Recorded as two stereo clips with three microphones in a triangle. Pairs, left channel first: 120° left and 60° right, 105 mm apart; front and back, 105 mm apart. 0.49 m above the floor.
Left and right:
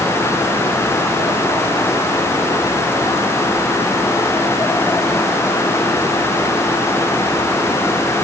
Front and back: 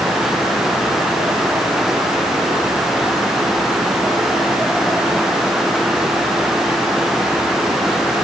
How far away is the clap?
I don't hear a clap.